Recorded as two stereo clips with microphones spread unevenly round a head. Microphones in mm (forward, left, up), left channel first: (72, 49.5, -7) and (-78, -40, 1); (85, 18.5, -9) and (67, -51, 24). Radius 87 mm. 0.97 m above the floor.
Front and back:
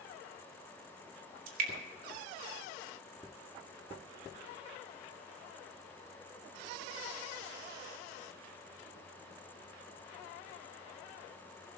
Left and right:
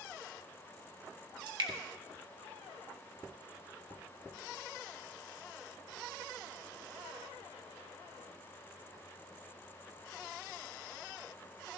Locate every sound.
1.5 s dripping: 105° right, 2.5 m